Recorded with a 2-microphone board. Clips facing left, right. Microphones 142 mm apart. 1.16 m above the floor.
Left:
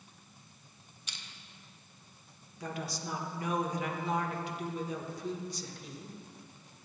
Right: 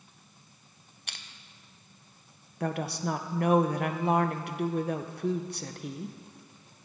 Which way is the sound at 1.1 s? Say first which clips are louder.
Right 3 dB; 60° right (ahead or behind).